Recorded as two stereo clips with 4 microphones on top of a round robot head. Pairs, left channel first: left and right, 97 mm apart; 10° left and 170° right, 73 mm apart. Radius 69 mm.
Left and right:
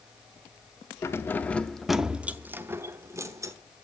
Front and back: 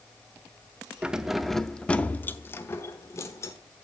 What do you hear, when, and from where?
1.0 s keys jangling: 120° left, 0.7 m; by 3.5 s 40° right, 1.1 m